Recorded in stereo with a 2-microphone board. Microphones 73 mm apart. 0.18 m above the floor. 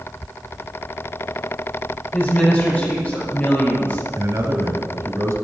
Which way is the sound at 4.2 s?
50° right (ahead or behind).